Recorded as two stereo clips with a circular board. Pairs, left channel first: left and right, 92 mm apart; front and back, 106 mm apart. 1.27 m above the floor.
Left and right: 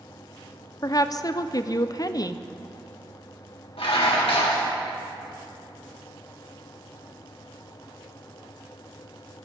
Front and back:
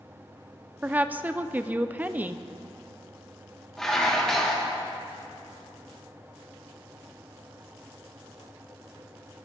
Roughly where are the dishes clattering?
Left.